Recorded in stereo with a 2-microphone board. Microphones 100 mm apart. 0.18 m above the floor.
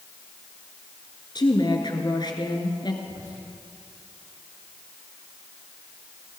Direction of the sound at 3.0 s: 35° right (ahead or behind).